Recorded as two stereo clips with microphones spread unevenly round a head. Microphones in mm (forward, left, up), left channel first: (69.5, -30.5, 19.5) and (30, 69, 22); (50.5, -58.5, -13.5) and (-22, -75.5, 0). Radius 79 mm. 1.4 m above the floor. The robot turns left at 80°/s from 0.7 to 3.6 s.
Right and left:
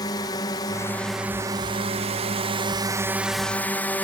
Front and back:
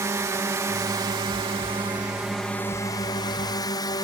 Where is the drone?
125° right; by 4.0 s 5° left.